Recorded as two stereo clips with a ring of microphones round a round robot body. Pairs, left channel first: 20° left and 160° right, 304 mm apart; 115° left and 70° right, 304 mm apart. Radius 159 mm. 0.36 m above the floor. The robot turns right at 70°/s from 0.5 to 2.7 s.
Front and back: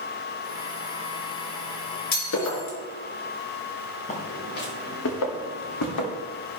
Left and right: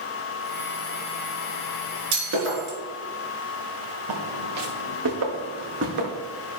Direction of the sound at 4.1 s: 45° right.